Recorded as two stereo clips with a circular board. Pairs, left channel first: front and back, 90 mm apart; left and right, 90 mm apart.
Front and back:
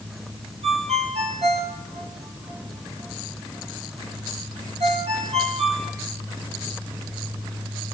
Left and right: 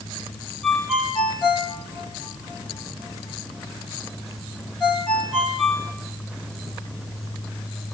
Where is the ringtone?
Straight behind, 5 m.